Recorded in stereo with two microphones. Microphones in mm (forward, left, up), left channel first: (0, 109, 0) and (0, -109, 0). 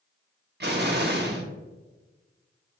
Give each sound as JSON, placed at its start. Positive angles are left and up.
{"t": 0.6, "sound": "an explosion", "side_deg": -50, "distance_m": 0.6}